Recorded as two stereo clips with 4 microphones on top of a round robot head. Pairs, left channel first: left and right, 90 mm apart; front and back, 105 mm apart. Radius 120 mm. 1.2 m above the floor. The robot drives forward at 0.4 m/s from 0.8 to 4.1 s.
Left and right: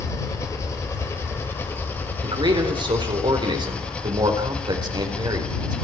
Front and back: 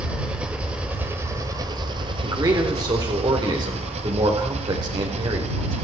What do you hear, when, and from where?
0.0 s an engine running: 110° left, 1.0 m; by 5.8 s 165° left, 1.7 m
2.2 s a man speaking: 120° right, 4 m; by 5.8 s 130° right, 4.5 m